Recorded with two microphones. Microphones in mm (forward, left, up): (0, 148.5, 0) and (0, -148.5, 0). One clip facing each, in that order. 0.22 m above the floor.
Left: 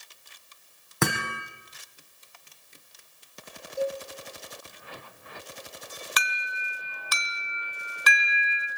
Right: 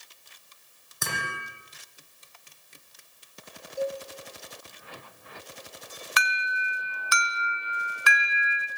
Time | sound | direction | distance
1.0 | hammering | 75° left (ahead or behind) | 5 m
3.8 | a cowbell | 25° left (ahead or behind) | 5.5 m
6.2 | an alarm | 45° left (ahead or behind) | 3 m